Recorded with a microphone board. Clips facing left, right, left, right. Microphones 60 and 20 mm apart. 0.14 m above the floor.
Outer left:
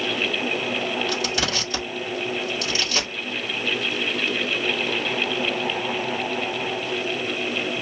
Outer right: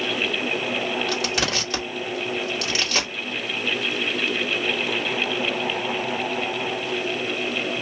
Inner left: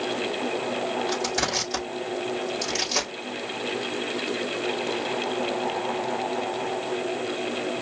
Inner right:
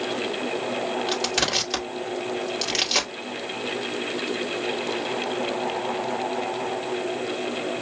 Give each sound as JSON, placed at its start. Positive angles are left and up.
{"t": 1.1, "sound": "crushing", "side_deg": -70, "distance_m": 3.5}